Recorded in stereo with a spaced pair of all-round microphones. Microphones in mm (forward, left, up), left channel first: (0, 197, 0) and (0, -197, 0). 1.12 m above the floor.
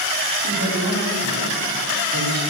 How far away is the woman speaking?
About 3 m.